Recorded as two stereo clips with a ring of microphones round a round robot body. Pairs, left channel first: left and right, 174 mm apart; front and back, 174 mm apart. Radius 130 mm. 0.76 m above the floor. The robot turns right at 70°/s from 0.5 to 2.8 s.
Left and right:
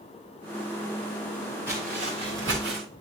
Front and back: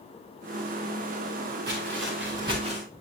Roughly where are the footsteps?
Behind.